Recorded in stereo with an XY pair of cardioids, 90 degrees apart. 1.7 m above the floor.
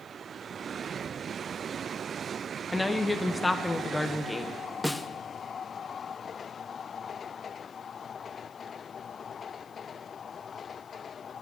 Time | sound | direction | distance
2.7 | a woman speaking | 15° left | 1.3 m
4.8 | a snare drum | 10° left | 1.1 m